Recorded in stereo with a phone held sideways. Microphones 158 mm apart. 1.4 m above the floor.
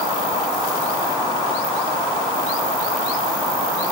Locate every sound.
Only background noise.